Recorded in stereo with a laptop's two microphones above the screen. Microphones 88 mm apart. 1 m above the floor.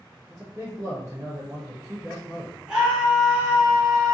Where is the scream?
5° right (ahead or behind), 1.0 m.